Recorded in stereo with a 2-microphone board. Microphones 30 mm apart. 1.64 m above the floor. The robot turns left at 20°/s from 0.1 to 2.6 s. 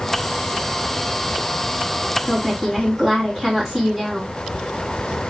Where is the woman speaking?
5° right (ahead or behind), 3.5 m; by 4.3 s 15° right (ahead or behind), 3.5 m.